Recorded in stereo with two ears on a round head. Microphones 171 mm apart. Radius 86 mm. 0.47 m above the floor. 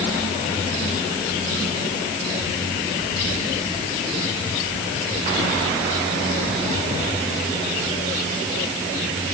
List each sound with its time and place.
Only background noise.